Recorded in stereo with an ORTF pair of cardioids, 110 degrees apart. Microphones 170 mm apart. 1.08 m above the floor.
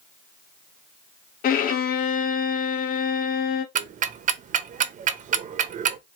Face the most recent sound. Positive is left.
turn(degrees=-50)